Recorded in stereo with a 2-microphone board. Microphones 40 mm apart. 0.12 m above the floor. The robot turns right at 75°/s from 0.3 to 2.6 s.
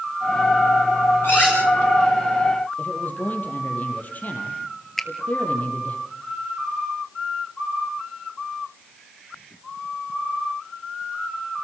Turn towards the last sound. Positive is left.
turn(degrees=10)  # may be behind; listen again after turning